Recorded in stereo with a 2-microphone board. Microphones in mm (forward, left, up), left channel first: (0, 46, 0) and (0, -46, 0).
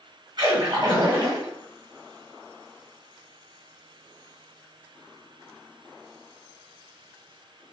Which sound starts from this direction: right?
A splash, at 0.4 s.